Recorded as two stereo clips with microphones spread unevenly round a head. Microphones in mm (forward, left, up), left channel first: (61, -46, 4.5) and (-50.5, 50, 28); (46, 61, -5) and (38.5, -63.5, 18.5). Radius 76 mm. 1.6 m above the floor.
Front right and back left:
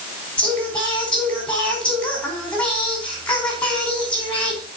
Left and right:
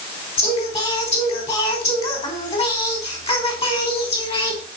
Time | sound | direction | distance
0.4 | singing | 45° left | 5 m